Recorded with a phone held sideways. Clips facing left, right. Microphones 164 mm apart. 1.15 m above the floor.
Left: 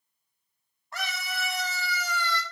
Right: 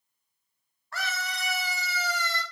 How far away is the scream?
About 1.1 m.